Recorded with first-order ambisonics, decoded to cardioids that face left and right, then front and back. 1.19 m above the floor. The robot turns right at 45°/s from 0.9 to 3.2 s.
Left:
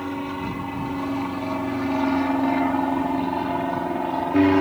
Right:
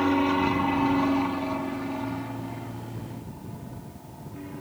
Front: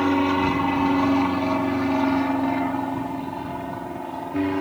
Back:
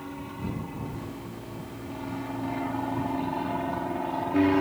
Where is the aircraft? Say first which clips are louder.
Right 6 dB, front 18 dB; 25° right; by 4.6 s 100° left.